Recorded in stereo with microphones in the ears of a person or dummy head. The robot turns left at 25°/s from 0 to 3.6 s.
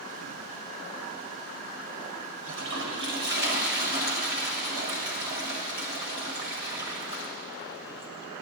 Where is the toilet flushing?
80° right, 1.2 m; by 8.1 s 50° right (ahead or behind), 1.2 m.